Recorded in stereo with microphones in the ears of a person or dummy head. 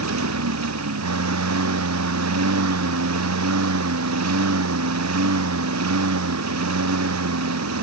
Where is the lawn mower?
80° right.